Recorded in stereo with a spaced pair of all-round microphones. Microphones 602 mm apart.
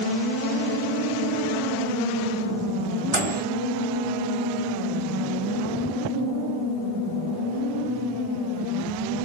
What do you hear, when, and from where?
3.1 s a microwave: 75° right (ahead or behind), 3 m